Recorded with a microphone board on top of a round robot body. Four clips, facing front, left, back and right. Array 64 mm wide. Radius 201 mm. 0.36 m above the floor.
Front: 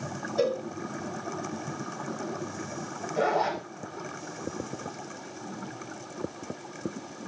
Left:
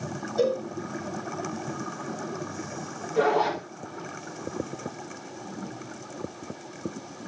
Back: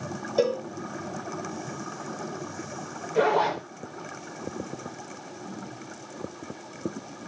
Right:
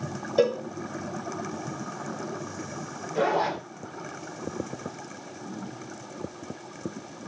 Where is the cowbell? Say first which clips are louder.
Right 2 dB, back 3 dB; 120° right, 2 m.